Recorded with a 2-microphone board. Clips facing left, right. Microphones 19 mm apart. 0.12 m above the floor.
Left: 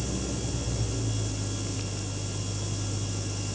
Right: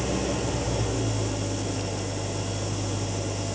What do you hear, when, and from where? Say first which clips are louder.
0.0 s an engine running: right 6 dB; 50° right (ahead or behind), 0.7 m